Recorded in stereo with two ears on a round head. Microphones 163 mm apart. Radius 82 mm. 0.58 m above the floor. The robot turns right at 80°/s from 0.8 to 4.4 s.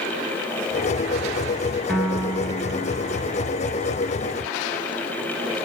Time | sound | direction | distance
1.9 | a piano | 170° left | 6 m